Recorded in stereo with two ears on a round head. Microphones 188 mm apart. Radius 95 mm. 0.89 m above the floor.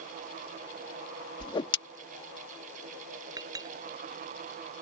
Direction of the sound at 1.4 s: 25° left (ahead or behind).